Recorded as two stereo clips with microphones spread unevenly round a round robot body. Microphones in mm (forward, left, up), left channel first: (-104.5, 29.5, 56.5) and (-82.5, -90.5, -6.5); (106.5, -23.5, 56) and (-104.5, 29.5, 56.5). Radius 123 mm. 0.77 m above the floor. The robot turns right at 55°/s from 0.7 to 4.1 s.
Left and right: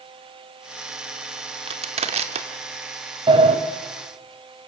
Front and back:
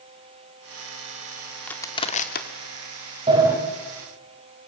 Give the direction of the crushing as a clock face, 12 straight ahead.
3 o'clock.